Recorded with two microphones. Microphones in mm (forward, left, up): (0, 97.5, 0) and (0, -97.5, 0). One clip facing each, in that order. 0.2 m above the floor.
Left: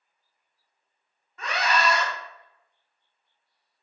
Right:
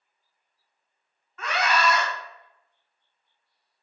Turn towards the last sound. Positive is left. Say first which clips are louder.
# right 1 dB
turn(degrees=15)  # may be behind; listen again after turning